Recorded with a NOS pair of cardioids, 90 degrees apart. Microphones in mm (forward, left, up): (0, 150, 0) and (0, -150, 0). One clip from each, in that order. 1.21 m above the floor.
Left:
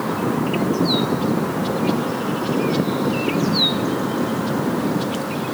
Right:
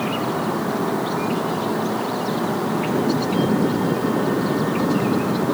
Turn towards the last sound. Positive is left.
No sound to turn to.